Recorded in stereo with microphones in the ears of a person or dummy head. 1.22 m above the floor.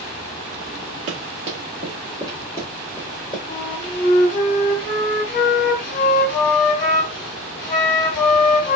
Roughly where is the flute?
Left.